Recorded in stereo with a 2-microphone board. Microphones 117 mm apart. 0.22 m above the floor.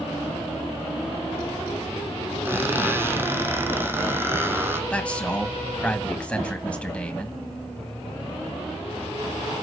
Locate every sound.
2.5 s a squeak: 20° right (ahead or behind), 1.2 m
4.9 s a man speaking: 10° left (ahead or behind), 1.3 m